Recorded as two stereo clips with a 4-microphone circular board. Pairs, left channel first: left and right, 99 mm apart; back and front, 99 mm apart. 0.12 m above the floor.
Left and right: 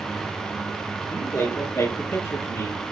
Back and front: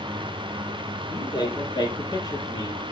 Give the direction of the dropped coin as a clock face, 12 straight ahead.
I don't hear a dropped coin.